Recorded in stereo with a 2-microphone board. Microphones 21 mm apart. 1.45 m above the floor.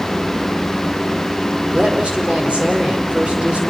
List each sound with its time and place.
1.7 s a woman speaking: 75° right (ahead or behind), 5 m